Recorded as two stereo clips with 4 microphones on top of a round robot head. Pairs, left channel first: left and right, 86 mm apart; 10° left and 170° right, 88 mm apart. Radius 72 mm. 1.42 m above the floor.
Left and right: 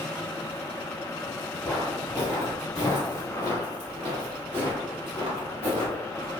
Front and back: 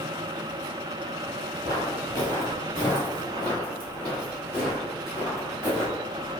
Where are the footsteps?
Straight behind, 1.8 m; by 6.3 s 80° right, 2.5 m.